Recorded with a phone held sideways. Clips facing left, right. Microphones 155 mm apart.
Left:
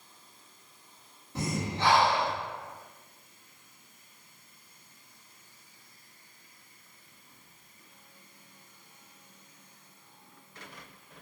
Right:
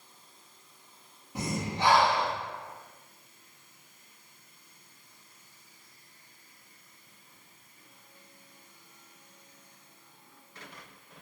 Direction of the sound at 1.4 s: 15° right (ahead or behind).